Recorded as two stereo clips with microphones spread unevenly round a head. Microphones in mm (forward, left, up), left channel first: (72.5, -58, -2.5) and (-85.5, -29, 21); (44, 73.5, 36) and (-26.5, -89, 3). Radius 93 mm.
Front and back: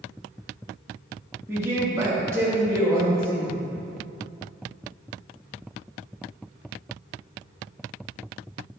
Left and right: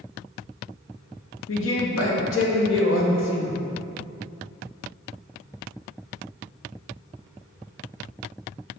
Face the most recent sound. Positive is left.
turn(degrees=90)